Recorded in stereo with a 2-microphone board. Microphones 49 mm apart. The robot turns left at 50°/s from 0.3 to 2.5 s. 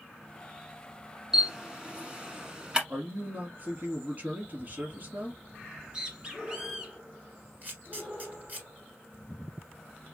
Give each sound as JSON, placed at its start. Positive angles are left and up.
{"t": 1.3, "sound": "a camera shutter", "side_deg": -10, "distance_m": 0.9}
{"t": 2.9, "sound": "a man speaking", "side_deg": -45, "distance_m": 2.5}
{"t": 5.6, "sound": "a bird", "side_deg": -15, "distance_m": 1.3}
{"t": 7.6, "sound": "a camera shutter", "side_deg": -35, "distance_m": 1.8}